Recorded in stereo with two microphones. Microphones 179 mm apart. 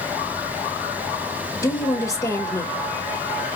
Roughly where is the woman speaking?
Centre.